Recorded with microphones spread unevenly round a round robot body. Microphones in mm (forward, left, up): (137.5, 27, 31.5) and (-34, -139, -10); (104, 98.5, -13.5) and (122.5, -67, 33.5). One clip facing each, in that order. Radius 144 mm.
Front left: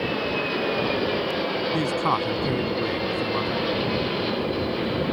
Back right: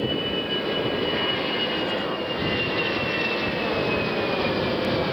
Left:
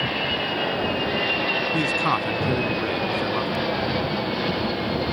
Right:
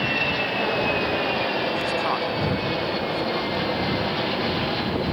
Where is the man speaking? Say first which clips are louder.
Front left 2 dB, left 1 dB; 75° left.